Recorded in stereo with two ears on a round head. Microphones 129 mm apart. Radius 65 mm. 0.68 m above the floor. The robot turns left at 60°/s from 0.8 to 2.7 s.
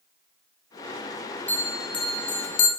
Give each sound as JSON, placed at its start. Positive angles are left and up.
{"t": 1.5, "sound": "a bell", "side_deg": 15, "distance_m": 2.0}